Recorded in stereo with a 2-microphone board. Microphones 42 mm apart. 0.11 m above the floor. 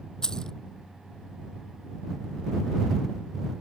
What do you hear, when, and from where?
0.2 s keys jangling: 15° left (ahead or behind)